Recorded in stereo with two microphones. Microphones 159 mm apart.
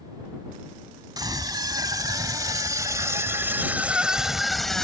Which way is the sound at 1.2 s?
25° right (ahead or behind).